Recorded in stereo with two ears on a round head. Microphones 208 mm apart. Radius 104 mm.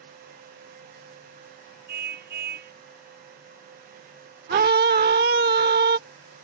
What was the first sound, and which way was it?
A car horn, 40° right (ahead or behind).